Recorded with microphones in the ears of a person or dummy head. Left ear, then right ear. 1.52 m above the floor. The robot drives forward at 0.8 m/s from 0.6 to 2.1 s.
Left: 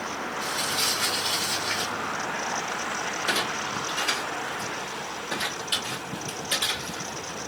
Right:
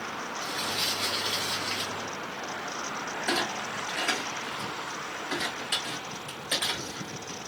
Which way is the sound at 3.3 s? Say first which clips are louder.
Left 2 dB; 35° right (ahead or behind).